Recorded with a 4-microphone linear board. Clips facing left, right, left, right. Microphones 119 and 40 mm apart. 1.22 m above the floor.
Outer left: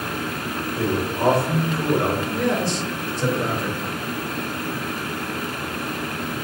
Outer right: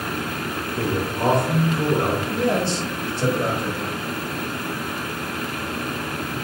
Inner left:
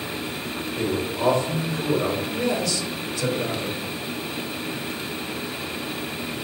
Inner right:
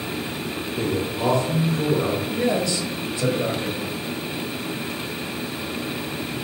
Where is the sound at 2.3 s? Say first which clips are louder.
Outer right 1 dB, inner right 2 dB; 25° right (ahead or behind), 1.8 m.